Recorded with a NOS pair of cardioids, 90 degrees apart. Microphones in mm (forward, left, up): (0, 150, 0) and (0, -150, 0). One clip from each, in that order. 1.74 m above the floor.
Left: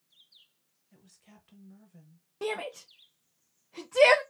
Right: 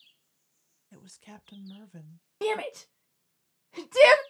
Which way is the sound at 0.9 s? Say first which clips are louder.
Right 9 dB; 45° right.